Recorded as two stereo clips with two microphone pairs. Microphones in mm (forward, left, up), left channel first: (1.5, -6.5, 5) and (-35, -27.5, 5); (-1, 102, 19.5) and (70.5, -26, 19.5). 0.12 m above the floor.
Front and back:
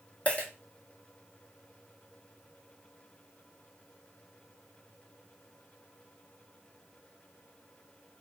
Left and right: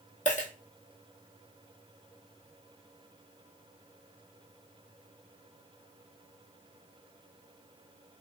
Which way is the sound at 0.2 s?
85° left.